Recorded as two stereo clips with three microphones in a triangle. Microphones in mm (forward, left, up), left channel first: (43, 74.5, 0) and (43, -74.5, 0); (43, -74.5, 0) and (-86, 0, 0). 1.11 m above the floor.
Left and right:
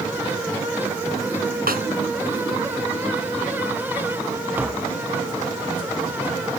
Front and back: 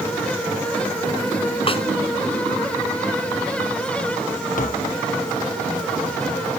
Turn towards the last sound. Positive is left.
turn(degrees=-15)